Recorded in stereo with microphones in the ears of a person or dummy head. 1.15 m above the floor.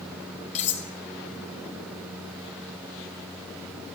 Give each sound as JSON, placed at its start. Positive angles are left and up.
{"t": 0.6, "sound": "cutlery clinking", "side_deg": 35, "distance_m": 0.6}